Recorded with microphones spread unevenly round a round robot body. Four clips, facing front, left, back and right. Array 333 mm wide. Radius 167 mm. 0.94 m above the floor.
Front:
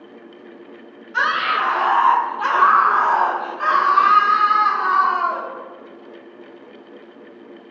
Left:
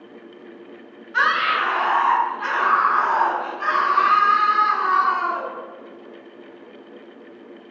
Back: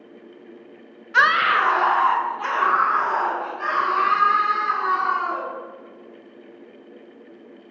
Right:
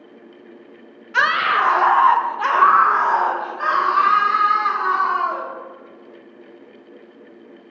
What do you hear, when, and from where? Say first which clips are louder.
1.1 s a scream: right 2 dB, back 2 dB; 135° right, 0.8 m; by 5.5 s 45° right, 2.5 m